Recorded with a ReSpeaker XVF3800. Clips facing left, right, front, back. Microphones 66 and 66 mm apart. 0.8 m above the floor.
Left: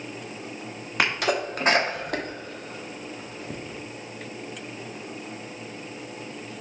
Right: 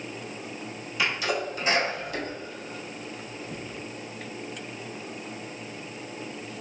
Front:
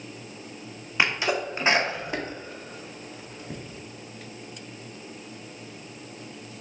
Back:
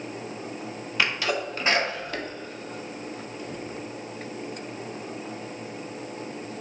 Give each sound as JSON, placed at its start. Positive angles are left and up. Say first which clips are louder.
{"t": 1.0, "sound": "a sneeze", "louder": "left 3 dB, front 1 dB", "azimuth_deg": 65, "distance_m": 1.4}